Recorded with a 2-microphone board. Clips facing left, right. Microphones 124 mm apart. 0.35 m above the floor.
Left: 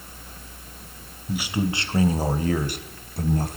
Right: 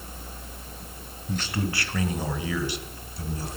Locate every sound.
1.3 s a man speaking: 5° left (ahead or behind), 2 m; by 3.6 s 50° left (ahead or behind), 2.5 m